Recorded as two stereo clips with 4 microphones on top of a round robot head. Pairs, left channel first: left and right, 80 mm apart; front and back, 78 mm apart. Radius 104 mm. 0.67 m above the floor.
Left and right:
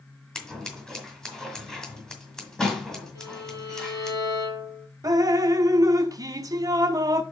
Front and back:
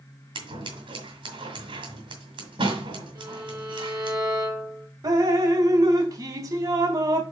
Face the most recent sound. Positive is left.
turn(degrees=-135)